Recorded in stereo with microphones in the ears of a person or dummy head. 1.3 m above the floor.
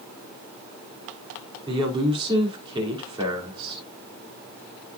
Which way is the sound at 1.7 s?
20° right (ahead or behind).